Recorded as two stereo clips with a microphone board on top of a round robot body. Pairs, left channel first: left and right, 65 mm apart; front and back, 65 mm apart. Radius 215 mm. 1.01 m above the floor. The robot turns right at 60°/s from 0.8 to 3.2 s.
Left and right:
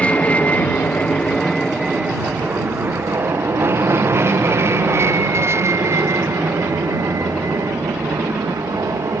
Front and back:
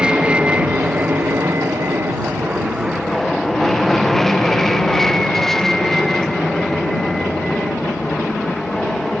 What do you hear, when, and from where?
0.0 s an aircraft: 125° left; by 9.2 s 80° right